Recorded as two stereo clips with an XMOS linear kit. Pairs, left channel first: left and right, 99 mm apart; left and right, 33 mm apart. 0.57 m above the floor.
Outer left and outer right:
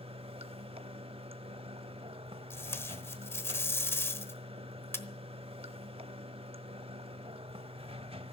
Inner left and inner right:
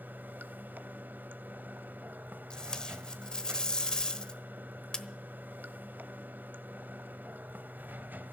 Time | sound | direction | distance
0.0 | running water | 75° right (ahead or behind) | 0.8 m
2.5 | tape being pulled | 25° left (ahead or behind) | 1.0 m